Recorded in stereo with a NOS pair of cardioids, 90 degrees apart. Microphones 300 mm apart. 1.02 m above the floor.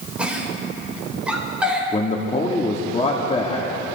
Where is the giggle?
5° right, 4 m.